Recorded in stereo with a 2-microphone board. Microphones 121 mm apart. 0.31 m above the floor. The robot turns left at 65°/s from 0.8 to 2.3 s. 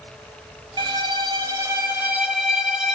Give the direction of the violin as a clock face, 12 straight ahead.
2 o'clock.